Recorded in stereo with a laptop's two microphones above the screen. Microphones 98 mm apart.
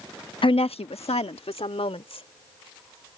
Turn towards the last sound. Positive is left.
turn(degrees=75)  # may be behind; listen again after turning